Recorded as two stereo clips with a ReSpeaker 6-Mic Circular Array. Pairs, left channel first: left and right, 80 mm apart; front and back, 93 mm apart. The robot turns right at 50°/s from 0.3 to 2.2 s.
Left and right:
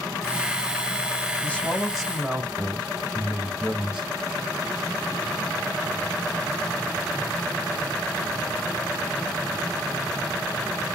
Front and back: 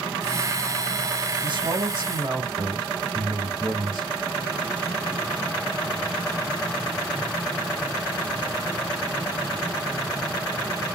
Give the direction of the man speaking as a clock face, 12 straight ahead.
7 o'clock.